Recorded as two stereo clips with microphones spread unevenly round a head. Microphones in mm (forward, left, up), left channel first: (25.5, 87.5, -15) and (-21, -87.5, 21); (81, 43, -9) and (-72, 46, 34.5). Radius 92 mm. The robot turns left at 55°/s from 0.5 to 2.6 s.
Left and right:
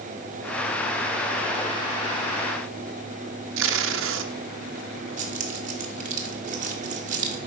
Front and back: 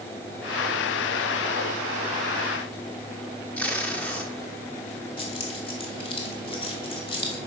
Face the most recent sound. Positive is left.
turn(degrees=-70)